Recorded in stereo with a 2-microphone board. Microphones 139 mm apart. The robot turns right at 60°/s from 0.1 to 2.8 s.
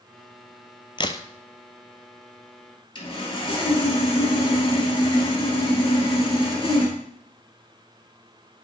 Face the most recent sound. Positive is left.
turn(degrees=35)  # may be behind; listen again after turning